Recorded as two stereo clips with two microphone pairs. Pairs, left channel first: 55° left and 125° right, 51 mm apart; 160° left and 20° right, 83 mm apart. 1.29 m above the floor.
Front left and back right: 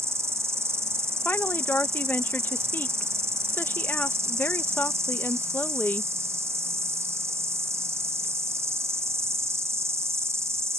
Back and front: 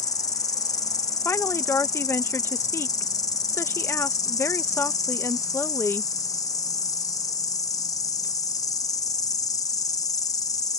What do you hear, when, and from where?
0.0 s an insect: 155° right
1.2 s a woman speaking: 105° left